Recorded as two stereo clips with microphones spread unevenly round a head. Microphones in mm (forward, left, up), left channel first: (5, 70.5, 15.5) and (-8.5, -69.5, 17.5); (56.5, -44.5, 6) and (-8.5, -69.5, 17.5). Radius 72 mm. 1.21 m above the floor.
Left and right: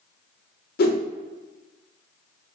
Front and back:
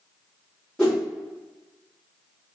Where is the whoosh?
105° left, 0.5 m.